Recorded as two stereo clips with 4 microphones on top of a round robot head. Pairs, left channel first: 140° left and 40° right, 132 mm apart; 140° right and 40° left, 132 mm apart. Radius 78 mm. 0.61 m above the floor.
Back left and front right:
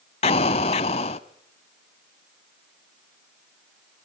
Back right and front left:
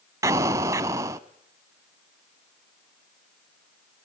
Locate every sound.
0.2 s an explosion: 105° left, 0.6 m